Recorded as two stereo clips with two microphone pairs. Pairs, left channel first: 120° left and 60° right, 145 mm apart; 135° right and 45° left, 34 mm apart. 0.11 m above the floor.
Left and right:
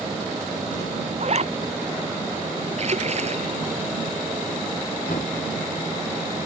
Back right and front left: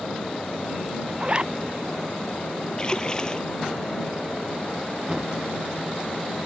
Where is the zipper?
20° right.